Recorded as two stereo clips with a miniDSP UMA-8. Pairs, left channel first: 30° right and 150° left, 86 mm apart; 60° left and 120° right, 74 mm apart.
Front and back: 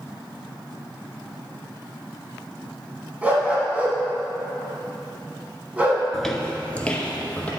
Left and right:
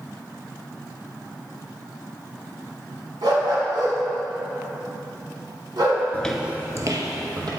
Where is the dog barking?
140° right, 1.8 m.